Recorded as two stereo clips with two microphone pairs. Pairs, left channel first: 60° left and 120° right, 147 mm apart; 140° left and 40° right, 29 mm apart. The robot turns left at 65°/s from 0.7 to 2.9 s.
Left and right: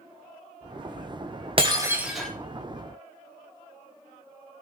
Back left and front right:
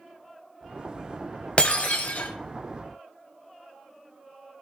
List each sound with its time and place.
1.6 s breaking glass: 170° right, 1.8 m; by 2.3 s 140° left, 1.8 m